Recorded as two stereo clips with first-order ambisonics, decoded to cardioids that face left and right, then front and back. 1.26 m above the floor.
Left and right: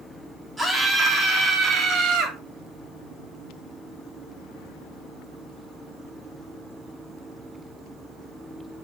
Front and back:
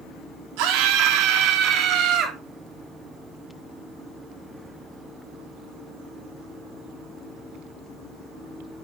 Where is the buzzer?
No buzzer in this recording.